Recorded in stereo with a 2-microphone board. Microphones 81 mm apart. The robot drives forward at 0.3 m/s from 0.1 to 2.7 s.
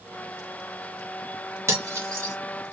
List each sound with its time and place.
1.7 s cutlery clinking: 35° right (ahead or behind), 1.3 m